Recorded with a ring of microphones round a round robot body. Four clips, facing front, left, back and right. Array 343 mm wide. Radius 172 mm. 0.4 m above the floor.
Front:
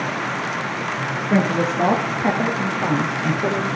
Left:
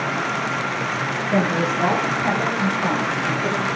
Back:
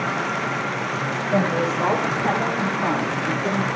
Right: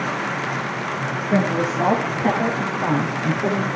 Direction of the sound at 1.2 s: 10° right.